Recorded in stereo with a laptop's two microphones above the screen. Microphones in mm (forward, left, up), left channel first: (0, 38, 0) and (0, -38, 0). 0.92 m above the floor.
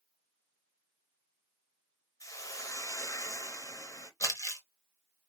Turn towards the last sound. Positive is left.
turn(degrees=45)  # may be behind; listen again after turning